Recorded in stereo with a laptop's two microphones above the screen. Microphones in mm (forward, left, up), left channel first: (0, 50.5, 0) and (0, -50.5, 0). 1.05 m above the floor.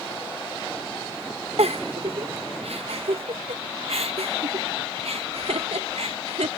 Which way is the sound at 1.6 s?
80° right.